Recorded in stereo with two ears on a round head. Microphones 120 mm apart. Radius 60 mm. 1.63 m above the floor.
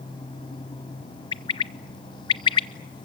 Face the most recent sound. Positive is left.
turn(degrees=35)  # may be behind; listen again after turning